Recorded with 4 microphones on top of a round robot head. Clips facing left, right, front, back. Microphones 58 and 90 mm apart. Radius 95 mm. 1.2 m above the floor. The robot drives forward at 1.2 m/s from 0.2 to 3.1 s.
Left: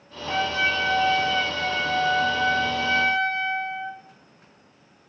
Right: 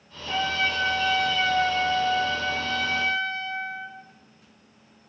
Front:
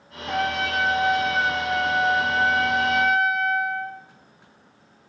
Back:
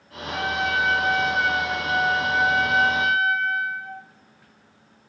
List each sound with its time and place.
0.3 s a trumpet: 20° left, 3 m; by 4.0 s 130° left, 1.5 m